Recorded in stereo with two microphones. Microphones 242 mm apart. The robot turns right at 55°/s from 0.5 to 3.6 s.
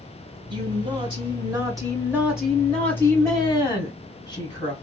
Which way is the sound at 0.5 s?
20° right (ahead or behind).